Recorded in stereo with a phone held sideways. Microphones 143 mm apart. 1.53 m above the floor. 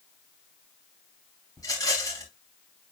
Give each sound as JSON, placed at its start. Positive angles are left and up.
{"t": 1.6, "sound": "a rattle", "side_deg": 25, "distance_m": 5.0}